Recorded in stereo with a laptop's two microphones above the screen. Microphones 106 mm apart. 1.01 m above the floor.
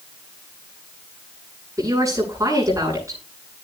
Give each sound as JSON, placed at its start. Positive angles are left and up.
{"t": 1.8, "sound": "a woman speaking", "side_deg": -30, "distance_m": 9.0}